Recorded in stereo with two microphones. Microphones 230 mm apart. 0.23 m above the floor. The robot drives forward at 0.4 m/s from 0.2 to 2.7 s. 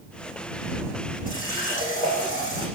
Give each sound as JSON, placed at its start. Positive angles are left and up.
{"t": 1.3, "sound": "a running tap", "side_deg": 35, "distance_m": 7.5}